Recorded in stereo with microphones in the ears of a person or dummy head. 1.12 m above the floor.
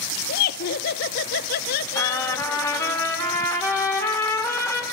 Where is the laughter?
50° left (ahead or behind), 0.6 m.